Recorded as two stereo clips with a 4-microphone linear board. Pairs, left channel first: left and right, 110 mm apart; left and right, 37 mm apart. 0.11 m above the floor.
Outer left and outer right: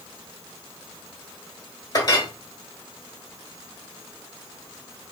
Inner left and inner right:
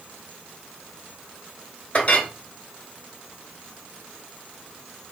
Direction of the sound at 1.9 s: 35° left (ahead or behind).